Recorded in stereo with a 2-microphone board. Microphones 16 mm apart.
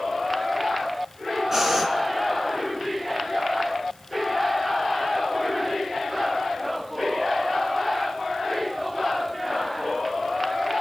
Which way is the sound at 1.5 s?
20° right (ahead or behind).